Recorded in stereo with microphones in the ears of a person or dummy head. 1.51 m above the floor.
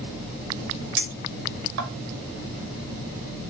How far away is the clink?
About 0.8 m.